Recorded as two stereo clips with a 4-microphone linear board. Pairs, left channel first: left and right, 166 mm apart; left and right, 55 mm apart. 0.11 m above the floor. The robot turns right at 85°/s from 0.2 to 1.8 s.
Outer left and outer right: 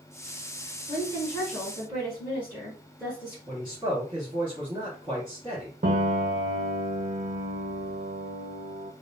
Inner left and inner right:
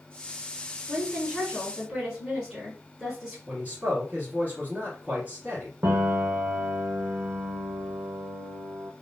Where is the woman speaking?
120° left, 1.7 m; by 3.4 s 165° right, 1.7 m.